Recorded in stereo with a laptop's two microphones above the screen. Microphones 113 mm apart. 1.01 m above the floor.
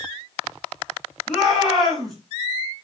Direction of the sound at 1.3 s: Centre (ahead or behind).